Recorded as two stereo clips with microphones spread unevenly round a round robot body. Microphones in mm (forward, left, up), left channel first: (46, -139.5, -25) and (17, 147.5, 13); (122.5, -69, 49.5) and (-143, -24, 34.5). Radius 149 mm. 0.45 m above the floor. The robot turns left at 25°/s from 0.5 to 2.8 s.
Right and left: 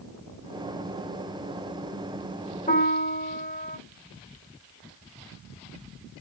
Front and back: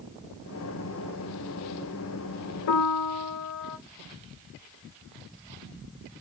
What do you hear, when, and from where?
2.7 s a piano: 20° right, 1.1 m